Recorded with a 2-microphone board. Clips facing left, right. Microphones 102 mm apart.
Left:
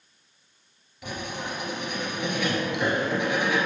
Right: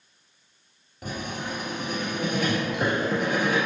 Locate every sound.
1.0 s writing: 40° right (ahead or behind), 2 m